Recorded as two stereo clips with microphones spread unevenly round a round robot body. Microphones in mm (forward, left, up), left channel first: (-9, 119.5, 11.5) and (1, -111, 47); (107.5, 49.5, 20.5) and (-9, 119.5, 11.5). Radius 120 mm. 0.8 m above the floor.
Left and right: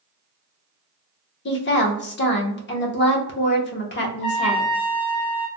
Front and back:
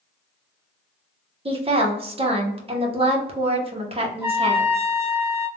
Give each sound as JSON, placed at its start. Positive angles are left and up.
{"t": 1.4, "sound": "a woman speaking", "azimuth_deg": 115, "distance_m": 1.0}
{"t": 4.2, "sound": "a trumpet", "azimuth_deg": 80, "distance_m": 0.9}